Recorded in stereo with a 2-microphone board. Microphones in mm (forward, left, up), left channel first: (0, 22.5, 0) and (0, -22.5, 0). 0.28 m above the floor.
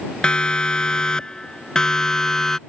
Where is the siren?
20° left (ahead or behind); by 2.6 s 10° left (ahead or behind).